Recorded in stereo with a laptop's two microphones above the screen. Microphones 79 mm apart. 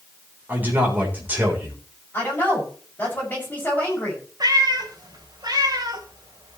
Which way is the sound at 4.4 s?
65° right (ahead or behind).